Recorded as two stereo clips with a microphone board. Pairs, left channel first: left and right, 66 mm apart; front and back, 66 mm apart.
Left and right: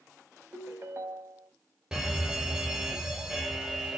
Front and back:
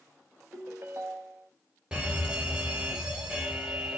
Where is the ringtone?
135° right, 0.8 m.